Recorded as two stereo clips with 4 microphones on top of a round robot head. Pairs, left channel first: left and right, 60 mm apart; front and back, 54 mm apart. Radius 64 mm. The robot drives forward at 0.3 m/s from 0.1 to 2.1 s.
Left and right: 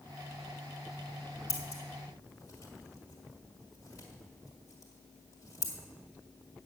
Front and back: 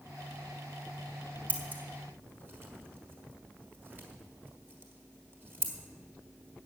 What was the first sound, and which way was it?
Scissors, 130° left.